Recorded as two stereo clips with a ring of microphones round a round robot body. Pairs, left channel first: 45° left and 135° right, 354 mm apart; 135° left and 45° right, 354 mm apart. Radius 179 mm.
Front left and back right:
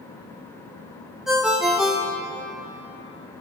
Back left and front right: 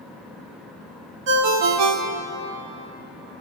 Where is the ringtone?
45° right, 1.3 m.